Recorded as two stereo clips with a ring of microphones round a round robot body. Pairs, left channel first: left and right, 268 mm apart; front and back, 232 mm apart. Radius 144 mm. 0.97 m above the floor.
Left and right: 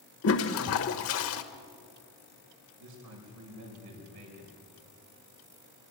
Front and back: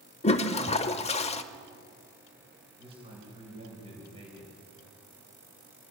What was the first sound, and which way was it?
A toilet flushing, 60° left.